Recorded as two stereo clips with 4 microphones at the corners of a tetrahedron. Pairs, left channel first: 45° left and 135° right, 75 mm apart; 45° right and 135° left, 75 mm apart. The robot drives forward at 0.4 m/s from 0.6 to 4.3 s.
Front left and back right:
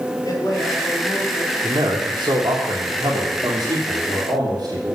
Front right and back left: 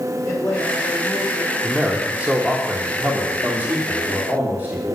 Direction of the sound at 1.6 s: 145° right.